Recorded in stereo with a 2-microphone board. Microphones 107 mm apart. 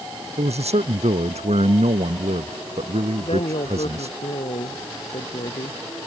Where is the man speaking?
85° right.